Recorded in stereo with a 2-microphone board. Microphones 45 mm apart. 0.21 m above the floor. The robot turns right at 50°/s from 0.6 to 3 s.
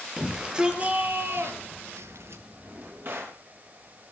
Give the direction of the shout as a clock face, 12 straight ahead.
5 o'clock.